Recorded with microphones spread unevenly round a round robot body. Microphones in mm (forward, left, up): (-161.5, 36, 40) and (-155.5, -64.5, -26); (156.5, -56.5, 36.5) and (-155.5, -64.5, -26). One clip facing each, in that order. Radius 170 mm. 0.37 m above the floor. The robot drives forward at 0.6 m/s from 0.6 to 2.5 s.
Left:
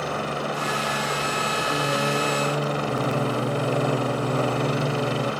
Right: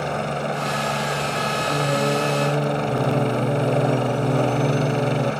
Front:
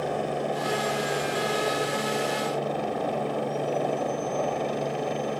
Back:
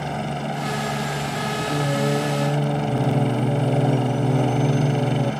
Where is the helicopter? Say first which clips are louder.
Right 3 dB, even; 140° right.